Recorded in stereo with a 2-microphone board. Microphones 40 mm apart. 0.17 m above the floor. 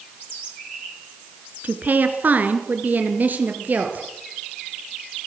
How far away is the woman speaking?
About 2.5 m.